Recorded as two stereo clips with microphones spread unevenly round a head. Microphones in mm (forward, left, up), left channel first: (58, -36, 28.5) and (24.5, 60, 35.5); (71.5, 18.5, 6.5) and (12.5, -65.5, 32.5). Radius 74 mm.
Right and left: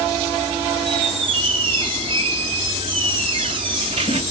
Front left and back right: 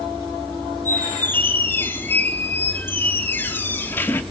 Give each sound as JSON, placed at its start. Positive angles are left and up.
{"t": 0.8, "sound": "a squeak", "azimuth_deg": 140, "distance_m": 0.6}